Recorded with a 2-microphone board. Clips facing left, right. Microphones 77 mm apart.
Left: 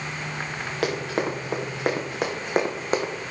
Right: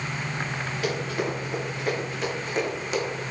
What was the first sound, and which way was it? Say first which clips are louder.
Running footsteps: left 3 dB; 70° left (ahead or behind).